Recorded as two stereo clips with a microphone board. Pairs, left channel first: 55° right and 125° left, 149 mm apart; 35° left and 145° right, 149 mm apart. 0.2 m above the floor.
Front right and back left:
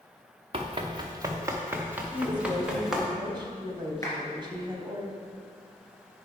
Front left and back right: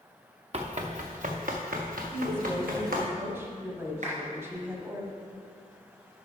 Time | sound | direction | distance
0.5 | running footsteps | 170° left | 1.1 m
2.1 | a woman speaking | 150° left | 1.4 m
4.0 | a clap | 120° right | 3 m